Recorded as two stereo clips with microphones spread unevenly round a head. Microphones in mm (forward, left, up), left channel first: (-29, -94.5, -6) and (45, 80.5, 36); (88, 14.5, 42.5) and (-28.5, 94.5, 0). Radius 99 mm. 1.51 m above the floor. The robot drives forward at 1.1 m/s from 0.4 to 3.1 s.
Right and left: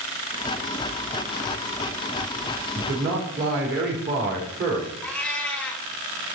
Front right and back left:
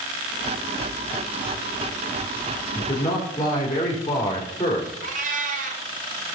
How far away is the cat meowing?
About 1.4 m.